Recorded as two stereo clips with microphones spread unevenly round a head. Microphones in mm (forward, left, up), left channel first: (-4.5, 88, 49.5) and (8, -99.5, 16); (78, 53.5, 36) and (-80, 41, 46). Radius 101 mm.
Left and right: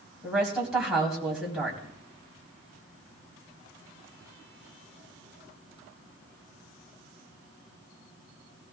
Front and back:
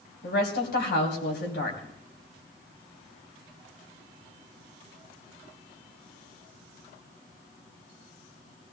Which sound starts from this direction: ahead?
A woman speaking, at 0.2 s.